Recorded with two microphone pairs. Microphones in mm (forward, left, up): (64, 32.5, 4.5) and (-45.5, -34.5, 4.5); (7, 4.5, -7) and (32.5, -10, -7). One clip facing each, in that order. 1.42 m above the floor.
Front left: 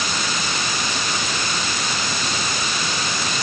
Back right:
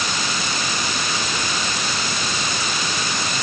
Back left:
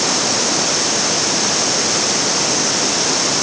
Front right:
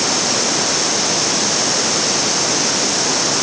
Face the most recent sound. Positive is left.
No sound to turn to.